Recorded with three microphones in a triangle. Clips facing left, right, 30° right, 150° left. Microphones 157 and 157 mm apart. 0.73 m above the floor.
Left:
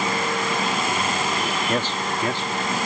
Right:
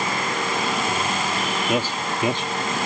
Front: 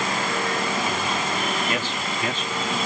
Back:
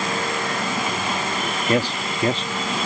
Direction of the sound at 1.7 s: 170° right.